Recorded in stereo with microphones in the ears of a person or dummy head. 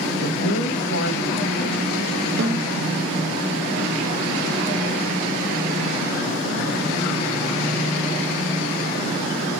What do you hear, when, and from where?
0.2 s a man speaking: 70° left (ahead or behind), 2.0 m
2.4 s a snare drum: 50° right (ahead or behind), 2.5 m